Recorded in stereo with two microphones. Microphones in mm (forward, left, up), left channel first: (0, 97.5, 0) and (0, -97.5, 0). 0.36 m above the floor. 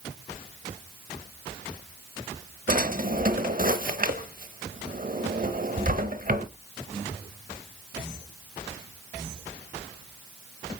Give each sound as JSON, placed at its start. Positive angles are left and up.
{"t": 2.7, "sound": "a drawer", "side_deg": -50, "distance_m": 0.8}